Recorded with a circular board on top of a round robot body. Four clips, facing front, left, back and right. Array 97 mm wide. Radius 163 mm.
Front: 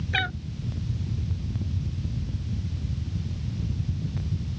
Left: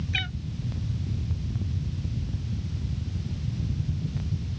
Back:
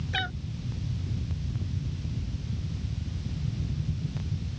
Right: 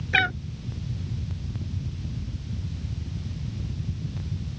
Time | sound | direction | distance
0.1 | a cat meowing | 80° right | ?